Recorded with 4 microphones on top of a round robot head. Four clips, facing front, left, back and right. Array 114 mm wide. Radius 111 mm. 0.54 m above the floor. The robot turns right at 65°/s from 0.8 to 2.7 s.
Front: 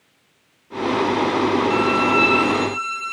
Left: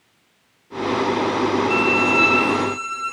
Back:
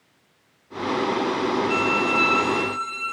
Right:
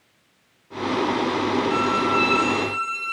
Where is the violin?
60° left, 7 m; by 3.1 s 125° left, 7 m.